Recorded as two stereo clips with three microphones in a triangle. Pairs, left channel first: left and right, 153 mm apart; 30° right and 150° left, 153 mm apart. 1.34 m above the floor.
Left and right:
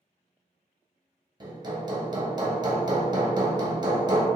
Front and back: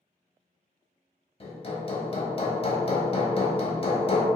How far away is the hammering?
About 0.8 m.